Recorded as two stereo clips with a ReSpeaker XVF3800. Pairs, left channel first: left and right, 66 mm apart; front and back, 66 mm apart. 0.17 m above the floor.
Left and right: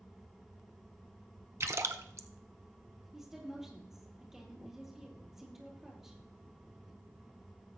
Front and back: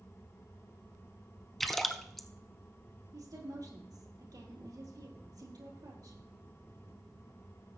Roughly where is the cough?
I don't hear a cough.